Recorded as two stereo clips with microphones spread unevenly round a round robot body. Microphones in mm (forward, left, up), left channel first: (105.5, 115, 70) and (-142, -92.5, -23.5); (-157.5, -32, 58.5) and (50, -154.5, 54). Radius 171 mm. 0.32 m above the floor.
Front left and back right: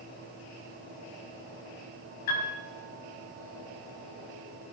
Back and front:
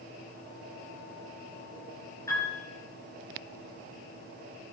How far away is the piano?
About 6.5 m.